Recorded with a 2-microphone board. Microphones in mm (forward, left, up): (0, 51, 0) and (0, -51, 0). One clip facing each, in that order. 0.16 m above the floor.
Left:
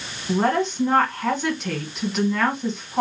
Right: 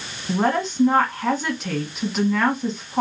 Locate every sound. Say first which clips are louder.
0.3 s a woman speaking: left 1 dB; centre (ahead or behind), 1.3 m